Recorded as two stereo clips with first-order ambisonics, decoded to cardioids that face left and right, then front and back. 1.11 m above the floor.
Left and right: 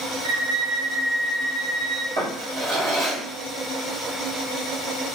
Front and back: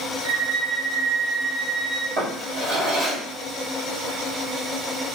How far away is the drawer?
About 1.8 m.